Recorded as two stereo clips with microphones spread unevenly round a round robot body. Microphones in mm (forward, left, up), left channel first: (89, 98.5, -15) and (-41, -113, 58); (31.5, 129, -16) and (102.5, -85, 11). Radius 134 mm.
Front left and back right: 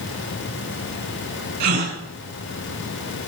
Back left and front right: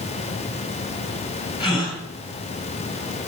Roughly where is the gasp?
Behind.